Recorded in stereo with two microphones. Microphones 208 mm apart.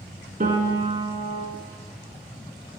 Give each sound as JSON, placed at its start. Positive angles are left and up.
{"t": 0.4, "sound": "a piano", "side_deg": -45, "distance_m": 0.9}